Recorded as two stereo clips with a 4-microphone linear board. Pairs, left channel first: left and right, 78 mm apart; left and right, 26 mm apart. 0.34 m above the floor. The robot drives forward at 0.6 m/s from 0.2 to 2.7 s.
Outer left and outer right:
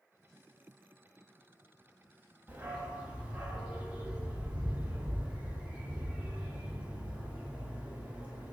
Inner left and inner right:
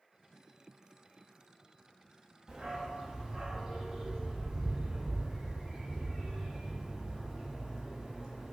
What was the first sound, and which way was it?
A dog barking, 20° right (ahead or behind).